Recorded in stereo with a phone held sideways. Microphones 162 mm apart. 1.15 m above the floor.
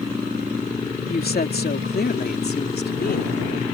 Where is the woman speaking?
70° left (ahead or behind); by 3.6 s 75° left (ahead or behind).